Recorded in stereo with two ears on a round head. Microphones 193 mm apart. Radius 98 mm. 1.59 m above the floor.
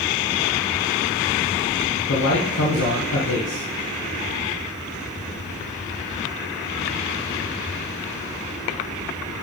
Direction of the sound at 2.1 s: 75° left (ahead or behind).